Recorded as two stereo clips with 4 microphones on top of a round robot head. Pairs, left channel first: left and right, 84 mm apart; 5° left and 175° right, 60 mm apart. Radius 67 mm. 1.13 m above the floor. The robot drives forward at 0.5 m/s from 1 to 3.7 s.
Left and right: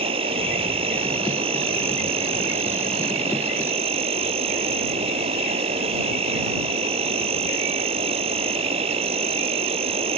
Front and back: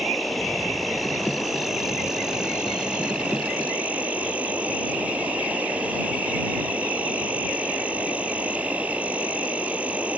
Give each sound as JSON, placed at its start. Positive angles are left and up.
{"t": 0.0, "sound": "an insect", "azimuth_deg": -85}